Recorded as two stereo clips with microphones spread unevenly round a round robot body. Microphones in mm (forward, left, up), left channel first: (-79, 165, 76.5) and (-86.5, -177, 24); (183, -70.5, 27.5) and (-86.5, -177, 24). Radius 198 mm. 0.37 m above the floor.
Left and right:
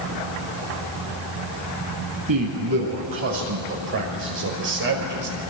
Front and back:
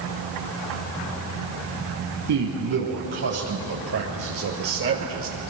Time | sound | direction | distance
2.3 | a man speaking | 125° right | 7.5 m